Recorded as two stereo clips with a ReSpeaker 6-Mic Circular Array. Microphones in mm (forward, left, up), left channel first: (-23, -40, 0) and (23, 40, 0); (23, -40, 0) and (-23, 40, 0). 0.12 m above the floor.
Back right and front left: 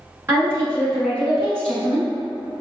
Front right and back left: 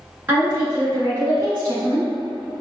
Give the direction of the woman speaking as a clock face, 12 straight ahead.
9 o'clock.